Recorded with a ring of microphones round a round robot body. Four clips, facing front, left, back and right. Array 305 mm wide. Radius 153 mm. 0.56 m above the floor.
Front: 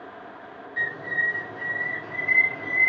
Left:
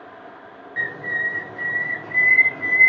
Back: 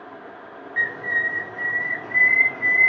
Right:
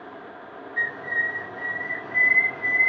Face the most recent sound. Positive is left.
turn(degrees=100)